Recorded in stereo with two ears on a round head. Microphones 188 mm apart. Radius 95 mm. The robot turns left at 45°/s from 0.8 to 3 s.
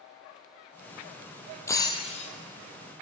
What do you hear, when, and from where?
1.7 s breaking glass: 15° left (ahead or behind), 2.0 m; by 2.3 s 40° left (ahead or behind), 2.0 m